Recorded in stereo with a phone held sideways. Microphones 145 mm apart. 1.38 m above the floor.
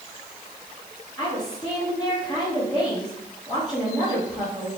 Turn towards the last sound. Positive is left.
turn(degrees=5)  # may be behind; listen again after turning